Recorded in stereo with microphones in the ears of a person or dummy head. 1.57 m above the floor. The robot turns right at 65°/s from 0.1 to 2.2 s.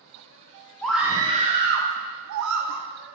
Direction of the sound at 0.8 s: 170° left.